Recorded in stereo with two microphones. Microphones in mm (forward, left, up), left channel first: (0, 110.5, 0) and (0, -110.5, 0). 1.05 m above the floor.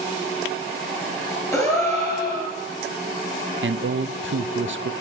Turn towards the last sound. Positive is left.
turn(degrees=-65)  # may be behind; listen again after turning